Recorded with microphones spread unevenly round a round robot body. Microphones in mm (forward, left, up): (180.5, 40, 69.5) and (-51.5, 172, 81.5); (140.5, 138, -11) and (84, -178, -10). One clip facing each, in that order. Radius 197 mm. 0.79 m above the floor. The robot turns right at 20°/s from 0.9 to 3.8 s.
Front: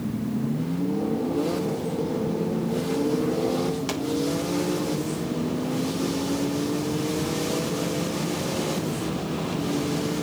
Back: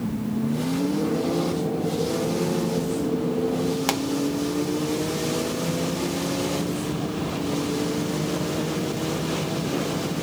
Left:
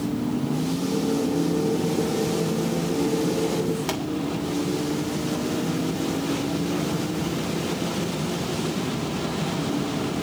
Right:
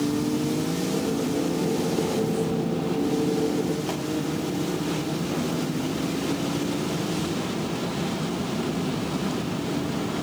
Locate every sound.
3.9 s a pop: 140° left, 1.5 m